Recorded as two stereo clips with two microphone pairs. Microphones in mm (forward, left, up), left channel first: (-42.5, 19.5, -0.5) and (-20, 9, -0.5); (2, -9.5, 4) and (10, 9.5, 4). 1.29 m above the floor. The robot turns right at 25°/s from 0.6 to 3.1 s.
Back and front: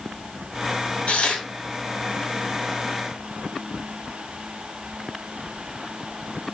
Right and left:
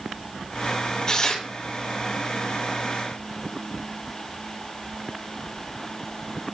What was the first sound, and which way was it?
Tearing paper, 165° right.